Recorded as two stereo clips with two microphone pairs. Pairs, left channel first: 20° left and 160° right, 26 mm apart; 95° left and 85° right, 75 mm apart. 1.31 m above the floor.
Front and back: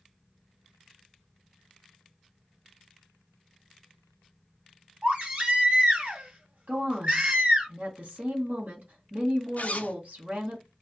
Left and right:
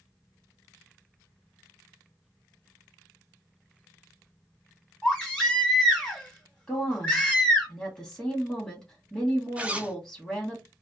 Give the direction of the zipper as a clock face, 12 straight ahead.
12 o'clock.